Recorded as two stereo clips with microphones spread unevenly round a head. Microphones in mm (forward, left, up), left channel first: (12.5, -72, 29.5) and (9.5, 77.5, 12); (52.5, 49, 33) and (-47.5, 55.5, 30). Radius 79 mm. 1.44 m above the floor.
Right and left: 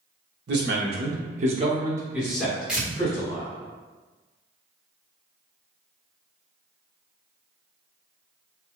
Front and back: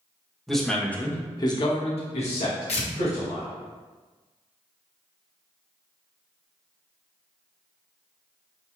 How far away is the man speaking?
About 1.3 m.